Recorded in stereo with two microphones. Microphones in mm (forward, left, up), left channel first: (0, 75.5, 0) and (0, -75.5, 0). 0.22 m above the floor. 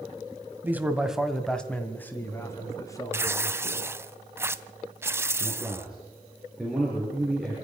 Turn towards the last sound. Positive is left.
turn(degrees=0)  # may be behind; listen again after turning